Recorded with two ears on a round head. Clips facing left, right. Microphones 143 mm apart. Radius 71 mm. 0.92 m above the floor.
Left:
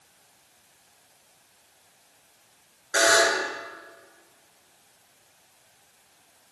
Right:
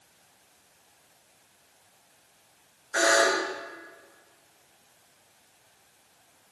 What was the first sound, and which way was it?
A buzzer, 40° left (ahead or behind).